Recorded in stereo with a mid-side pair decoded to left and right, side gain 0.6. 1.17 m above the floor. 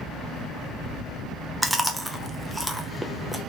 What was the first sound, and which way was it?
Chewing, 5° right.